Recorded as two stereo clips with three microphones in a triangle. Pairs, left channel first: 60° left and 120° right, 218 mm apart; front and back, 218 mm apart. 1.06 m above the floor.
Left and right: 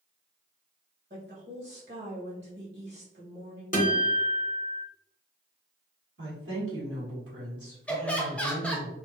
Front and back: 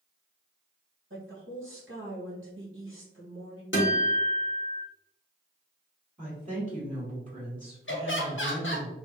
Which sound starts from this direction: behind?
A woman speaking, at 1.1 s.